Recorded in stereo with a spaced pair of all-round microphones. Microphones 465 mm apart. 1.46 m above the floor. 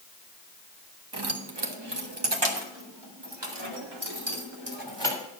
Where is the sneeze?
I don't hear a sneeze.